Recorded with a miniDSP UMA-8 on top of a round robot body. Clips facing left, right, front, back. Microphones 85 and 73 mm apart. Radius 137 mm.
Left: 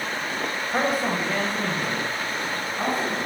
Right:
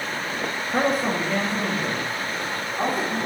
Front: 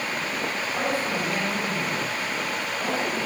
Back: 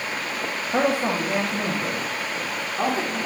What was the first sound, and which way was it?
A man speaking, 175° left.